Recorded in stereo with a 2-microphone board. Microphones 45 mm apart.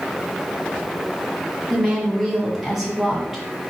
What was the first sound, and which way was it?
A woman speaking, 5° right (ahead or behind).